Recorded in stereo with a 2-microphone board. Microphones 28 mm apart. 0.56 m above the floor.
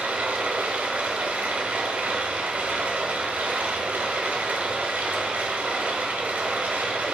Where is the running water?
60° right (ahead or behind), 0.7 m.